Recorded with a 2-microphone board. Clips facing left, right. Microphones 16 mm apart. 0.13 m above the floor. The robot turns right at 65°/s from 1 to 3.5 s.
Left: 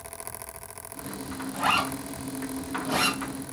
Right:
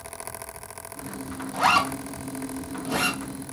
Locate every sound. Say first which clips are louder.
1.5 s a zipper: right 4 dB; 75° right (ahead or behind), 3 m; by 3.2 s 30° left (ahead or behind), 3 m